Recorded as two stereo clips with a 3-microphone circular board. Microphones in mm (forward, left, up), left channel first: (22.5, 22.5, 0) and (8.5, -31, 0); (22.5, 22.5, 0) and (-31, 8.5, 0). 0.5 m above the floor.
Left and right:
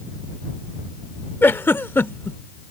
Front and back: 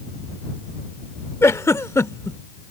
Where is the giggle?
35° left.